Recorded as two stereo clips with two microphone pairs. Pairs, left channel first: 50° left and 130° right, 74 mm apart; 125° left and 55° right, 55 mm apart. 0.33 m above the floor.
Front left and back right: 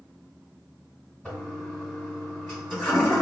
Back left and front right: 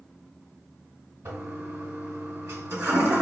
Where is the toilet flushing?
25° right, 1.4 m.